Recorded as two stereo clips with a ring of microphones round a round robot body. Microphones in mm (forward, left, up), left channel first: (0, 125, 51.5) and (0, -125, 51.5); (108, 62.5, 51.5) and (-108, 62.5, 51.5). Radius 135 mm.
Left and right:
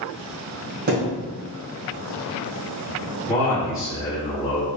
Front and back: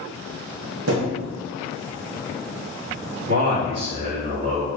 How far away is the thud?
About 1.6 m.